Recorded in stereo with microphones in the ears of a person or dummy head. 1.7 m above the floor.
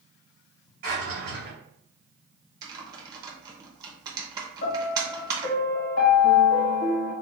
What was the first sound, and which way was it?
A drawer, 50° right (ahead or behind).